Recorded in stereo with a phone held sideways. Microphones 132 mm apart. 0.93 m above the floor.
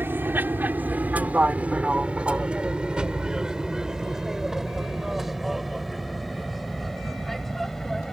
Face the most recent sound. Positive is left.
turn(degrees=5)  # may be behind; listen again after turning